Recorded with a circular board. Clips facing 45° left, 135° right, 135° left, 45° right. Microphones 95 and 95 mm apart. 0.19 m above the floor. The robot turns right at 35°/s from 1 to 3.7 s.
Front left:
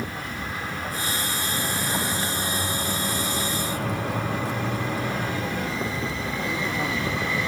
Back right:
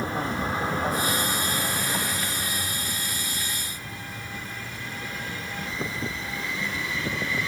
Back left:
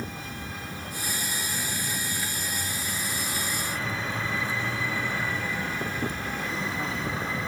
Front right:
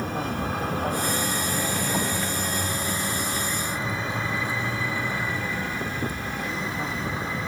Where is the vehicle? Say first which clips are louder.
Back right 4 dB, front right 9 dB; 75° right; by 7.5 s 40° left.